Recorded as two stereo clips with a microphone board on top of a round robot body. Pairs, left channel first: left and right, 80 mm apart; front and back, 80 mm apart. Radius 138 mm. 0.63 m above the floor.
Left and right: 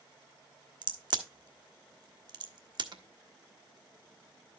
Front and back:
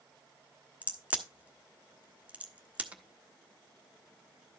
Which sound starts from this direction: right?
A crack, at 0.8 s.